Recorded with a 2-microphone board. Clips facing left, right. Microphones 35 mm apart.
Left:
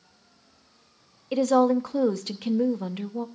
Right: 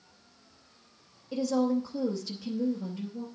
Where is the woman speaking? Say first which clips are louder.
Left 7 dB; 65° left (ahead or behind), 0.7 m.